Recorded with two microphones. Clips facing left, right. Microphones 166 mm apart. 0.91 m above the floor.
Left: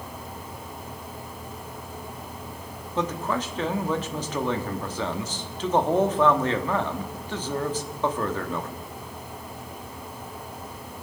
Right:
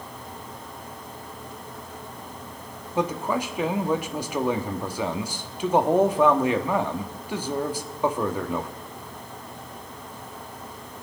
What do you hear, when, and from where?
3.0 s a man speaking: 10° right (ahead or behind), 1.2 m